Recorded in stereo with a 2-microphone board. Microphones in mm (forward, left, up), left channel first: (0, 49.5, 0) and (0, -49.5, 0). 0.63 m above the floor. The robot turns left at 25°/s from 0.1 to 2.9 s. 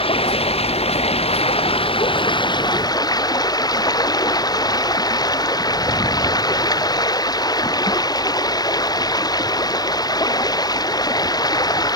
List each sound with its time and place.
0.0 s running water: 110° left; by 12.0 s 40° left